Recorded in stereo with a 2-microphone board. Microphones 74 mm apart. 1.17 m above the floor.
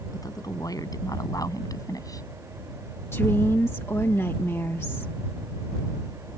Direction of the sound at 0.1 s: 55° left (ahead or behind).